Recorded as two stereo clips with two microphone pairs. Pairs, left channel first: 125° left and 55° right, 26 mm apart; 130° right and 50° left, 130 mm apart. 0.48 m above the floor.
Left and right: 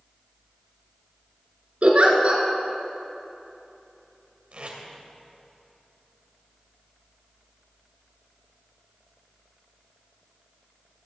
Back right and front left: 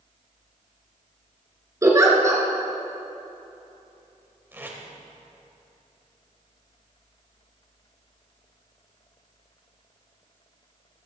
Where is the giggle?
20° right, 2.5 m.